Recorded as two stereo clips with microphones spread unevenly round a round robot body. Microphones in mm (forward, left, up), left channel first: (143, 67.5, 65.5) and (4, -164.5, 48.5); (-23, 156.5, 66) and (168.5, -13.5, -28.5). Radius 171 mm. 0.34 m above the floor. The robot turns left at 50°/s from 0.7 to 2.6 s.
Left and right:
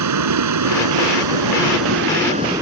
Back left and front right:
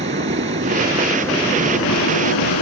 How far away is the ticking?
I don't hear ticking.